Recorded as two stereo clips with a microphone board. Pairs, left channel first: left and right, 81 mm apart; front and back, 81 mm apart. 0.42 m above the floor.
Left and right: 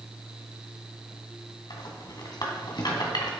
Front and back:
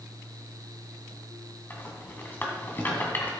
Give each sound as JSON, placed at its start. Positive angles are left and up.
{"t": 1.7, "sound": "a rattle", "azimuth_deg": 65, "distance_m": 2.5}